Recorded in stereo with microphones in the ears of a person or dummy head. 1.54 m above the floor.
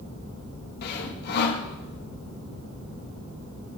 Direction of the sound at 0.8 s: 60° left (ahead or behind).